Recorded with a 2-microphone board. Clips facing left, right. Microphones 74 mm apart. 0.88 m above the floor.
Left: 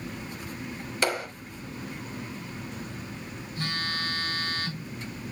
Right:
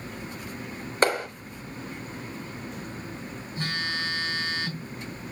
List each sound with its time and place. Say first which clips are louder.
1.0 s a clap: right 5 dB; 35° right (ahead or behind), 3.5 m
3.6 s a phone buzzing: right 1 dB; 20° right (ahead or behind), 8 m